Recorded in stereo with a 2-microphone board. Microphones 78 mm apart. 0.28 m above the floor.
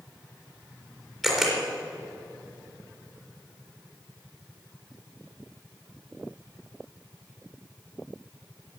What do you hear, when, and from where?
1.2 s a camera shutter: centre (ahead or behind), 4 m